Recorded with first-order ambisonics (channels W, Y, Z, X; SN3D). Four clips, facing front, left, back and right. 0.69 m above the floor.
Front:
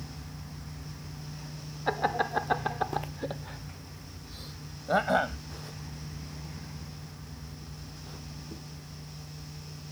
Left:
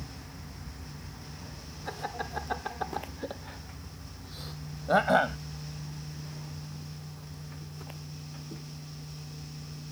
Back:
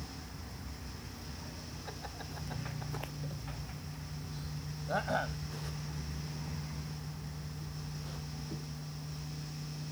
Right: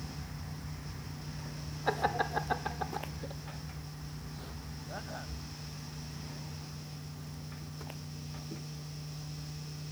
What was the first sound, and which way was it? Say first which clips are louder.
Laughter: right 6 dB, front 20 dB; 30° right.